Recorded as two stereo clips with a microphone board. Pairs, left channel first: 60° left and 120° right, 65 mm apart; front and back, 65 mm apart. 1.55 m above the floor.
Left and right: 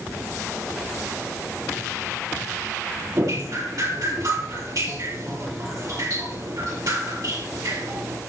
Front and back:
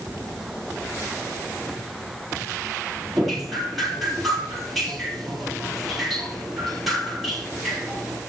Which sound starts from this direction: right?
Dripping, at 3.1 s.